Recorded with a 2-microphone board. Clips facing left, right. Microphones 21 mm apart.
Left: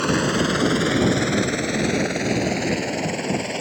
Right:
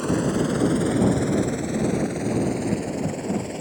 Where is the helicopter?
40° left (ahead or behind).